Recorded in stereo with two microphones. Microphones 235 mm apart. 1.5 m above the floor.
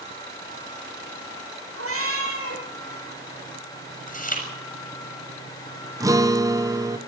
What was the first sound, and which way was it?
A cat meowing, 75° right (ahead or behind).